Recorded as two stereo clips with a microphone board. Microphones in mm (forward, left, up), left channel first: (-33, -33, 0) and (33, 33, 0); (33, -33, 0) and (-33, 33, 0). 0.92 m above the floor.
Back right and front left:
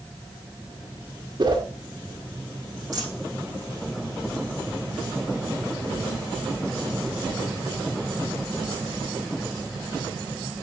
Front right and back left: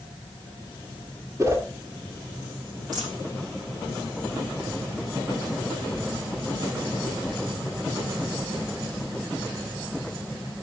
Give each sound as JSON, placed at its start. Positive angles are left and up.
{"t": 1.4, "sound": "a whoosh", "azimuth_deg": 80, "distance_m": 1.9}
{"t": 2.9, "sound": "a dropped coin", "azimuth_deg": 90, "distance_m": 5.5}